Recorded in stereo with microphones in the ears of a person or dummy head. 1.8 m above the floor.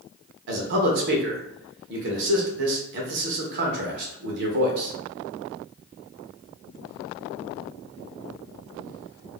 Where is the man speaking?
55° right (ahead or behind), 0.6 m.